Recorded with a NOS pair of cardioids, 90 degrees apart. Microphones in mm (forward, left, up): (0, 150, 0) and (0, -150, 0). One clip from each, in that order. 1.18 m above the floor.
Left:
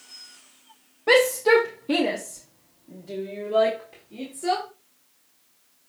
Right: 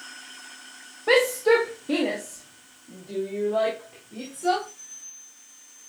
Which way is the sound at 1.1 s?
5° left.